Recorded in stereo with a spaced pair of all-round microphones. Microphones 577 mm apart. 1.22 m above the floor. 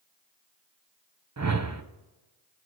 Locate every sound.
1.4 s a whoosh: 30° right (ahead or behind), 0.6 m